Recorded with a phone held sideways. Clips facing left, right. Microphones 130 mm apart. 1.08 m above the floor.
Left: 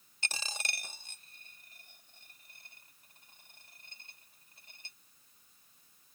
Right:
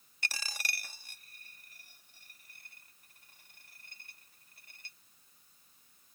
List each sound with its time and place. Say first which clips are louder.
0.2 s a dropped coin: even; 25° left (ahead or behind)